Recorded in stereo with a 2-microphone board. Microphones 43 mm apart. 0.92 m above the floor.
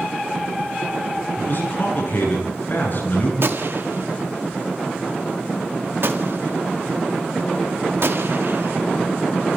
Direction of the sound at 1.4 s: 55° left (ahead or behind).